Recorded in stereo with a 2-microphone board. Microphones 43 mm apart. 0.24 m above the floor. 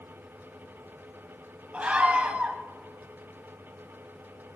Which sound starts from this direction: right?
A scream, at 1.7 s.